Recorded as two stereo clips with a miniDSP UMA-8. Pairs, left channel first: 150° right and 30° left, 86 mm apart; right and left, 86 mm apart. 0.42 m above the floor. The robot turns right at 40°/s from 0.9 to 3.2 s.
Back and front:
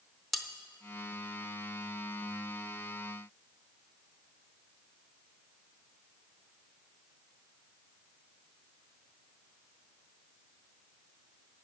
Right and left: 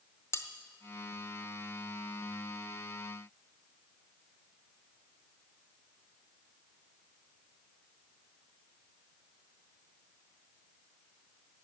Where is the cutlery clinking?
65° right, 0.7 m.